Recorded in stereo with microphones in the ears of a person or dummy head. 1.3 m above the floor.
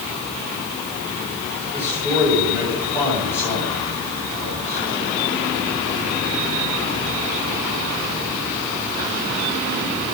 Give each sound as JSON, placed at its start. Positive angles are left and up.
{"t": 1.7, "sound": "a man speaking", "side_deg": -10, "distance_m": 6.0}